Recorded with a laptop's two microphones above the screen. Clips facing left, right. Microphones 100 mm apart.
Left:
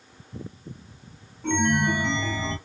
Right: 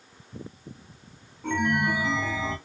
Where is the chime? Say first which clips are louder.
Left 2 dB; 5° right (ahead or behind), 1.0 m.